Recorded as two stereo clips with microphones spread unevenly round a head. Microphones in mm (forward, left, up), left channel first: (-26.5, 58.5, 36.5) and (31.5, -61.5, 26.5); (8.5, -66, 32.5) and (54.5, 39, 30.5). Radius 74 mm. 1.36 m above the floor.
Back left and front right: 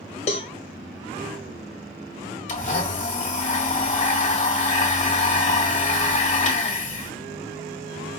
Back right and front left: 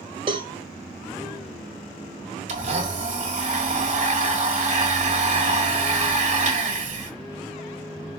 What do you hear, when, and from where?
0.3 s a cowbell: 115° left, 0.5 m
2.5 s a blender: 80° left, 1.6 m